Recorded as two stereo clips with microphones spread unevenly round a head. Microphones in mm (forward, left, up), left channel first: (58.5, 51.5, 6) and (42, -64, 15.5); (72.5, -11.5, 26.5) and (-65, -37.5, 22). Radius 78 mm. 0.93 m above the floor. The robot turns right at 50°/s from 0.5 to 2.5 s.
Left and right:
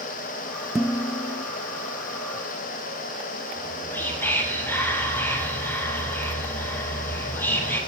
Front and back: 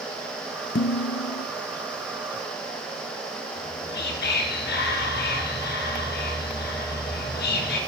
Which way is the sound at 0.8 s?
10° right.